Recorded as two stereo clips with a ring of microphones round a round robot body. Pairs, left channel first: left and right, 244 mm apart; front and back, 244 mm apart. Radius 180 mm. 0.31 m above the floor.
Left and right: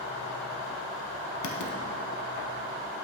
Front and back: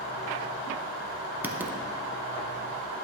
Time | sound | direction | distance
1.4 | writing | 95° left | 0.9 m